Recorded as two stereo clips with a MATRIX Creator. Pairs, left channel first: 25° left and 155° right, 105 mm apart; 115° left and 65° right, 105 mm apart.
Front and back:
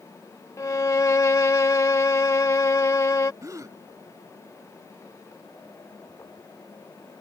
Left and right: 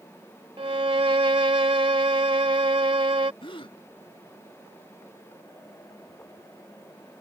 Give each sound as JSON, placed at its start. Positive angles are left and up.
{"t": 0.6, "sound": "a violin", "azimuth_deg": -35}
{"t": 3.4, "sound": "a gasp", "azimuth_deg": 145}